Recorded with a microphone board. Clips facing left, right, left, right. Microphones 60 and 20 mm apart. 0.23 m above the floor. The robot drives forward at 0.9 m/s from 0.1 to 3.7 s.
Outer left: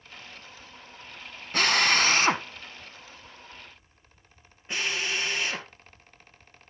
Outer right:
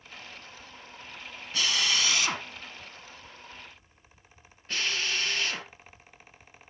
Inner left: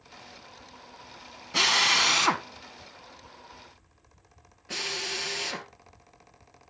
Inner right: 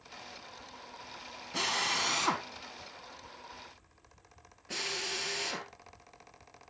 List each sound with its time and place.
1.5 s a drill: 55° left (ahead or behind), 0.7 m; by 5.7 s 20° left (ahead or behind), 1.9 m